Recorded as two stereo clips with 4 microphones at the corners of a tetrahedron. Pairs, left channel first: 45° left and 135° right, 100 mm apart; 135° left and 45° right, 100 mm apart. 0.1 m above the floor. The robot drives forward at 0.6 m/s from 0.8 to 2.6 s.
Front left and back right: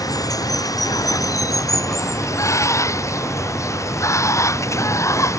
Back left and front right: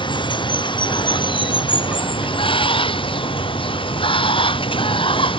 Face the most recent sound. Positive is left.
turn(degrees=105)